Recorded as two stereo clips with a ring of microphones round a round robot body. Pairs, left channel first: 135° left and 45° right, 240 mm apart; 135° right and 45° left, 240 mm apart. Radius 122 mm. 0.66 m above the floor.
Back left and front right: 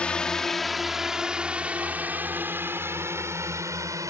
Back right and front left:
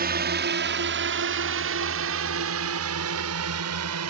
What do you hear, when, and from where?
0.0 s a drone: 50° left; by 4.1 s 30° left